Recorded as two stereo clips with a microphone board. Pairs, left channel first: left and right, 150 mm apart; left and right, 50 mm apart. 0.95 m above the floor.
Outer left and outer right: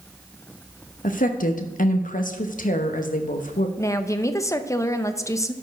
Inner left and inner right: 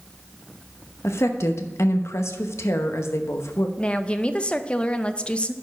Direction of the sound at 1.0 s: 65° left (ahead or behind).